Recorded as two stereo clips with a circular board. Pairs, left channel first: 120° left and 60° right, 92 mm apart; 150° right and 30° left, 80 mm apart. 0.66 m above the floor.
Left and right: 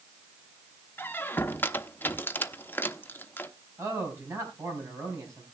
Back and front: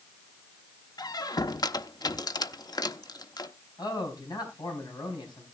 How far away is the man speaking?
About 5 m.